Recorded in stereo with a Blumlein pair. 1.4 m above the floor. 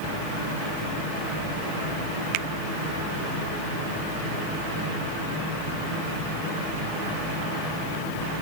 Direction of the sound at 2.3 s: 40° right.